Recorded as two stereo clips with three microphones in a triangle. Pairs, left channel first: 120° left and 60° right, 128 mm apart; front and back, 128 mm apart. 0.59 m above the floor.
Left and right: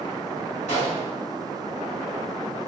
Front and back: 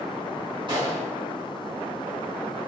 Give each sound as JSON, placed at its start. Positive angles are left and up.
{"t": 0.7, "sound": "a gunshot", "azimuth_deg": 130, "distance_m": 2.0}